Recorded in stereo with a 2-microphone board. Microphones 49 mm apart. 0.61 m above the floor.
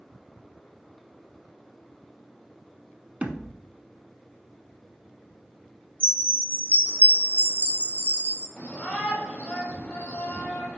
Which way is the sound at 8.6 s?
30° left (ahead or behind).